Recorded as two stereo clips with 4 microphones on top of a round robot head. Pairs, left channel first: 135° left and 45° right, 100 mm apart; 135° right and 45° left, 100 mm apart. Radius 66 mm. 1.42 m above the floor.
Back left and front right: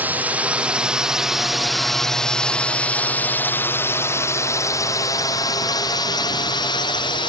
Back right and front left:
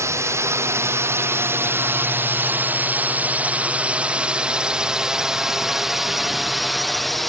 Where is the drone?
15° left; by 7.3 s 135° left.